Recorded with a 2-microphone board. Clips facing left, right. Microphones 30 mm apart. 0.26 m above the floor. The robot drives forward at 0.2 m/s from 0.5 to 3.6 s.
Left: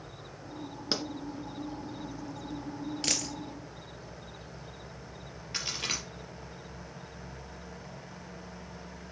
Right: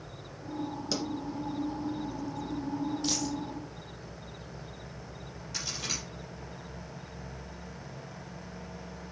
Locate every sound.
0.9 s a pop: 35° left (ahead or behind), 1.6 m
3.0 s a dropped coin: 80° left, 1.6 m; by 3.3 s 75° left (ahead or behind), 1.6 m
5.5 s a crack: 45° left (ahead or behind), 4.5 m